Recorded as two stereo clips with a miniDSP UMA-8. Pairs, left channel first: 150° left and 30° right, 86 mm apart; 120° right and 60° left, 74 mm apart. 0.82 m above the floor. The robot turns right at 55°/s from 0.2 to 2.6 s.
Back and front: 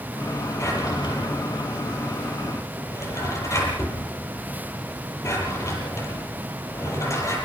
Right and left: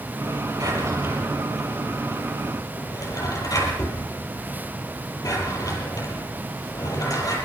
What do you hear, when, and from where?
0.6 s a drawer: 95° left, 7.5 m; by 7.4 s 155° right, 7.5 m